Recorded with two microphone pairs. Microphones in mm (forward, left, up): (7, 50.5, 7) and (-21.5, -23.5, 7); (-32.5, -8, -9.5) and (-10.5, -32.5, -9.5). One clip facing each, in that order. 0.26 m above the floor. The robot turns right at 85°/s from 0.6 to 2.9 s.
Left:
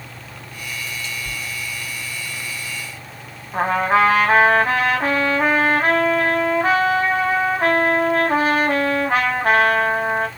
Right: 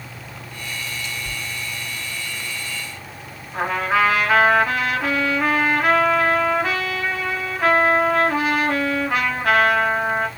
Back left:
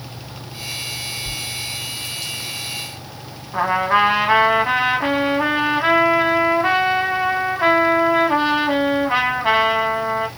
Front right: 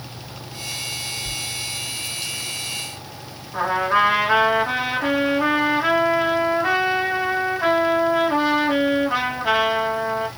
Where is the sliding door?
85° left, 0.8 m; by 1.4 s 100° left, 0.8 m.